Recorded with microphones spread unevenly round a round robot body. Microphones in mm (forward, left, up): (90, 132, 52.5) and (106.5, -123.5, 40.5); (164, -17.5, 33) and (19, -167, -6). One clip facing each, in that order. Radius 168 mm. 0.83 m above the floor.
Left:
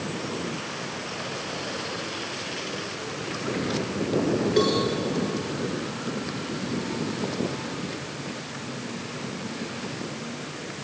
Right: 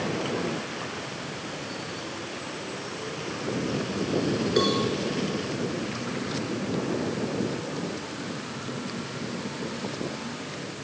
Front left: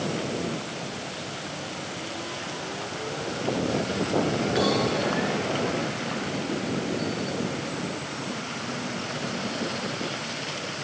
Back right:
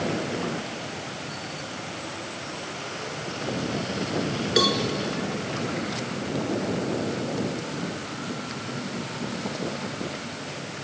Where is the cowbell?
160° right, 2 m.